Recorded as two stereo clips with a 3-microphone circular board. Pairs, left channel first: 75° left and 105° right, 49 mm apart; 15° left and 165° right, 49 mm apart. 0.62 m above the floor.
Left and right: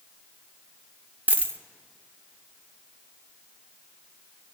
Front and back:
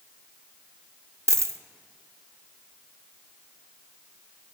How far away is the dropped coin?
About 0.5 m.